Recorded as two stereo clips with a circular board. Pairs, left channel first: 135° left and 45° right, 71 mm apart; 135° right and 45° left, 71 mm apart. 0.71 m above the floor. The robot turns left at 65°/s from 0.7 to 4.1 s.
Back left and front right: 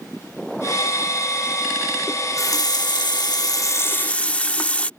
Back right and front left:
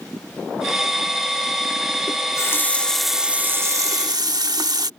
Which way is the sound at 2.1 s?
165° right.